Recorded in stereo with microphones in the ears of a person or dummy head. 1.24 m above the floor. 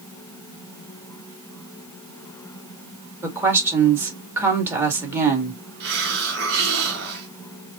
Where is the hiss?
60° right (ahead or behind), 2.5 m.